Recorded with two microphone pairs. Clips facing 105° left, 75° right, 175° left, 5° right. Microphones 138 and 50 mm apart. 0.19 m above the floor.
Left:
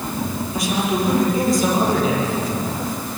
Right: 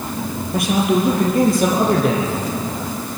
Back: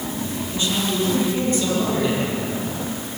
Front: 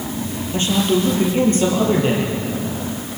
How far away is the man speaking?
About 6 m.